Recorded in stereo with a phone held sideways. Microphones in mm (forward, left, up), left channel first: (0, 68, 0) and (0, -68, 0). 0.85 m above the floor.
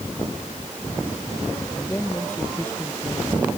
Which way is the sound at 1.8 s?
15° left (ahead or behind).